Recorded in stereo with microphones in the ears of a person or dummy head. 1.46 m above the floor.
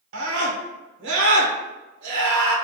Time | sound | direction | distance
0.1 | a scream | 75° right (ahead or behind) | 1.5 m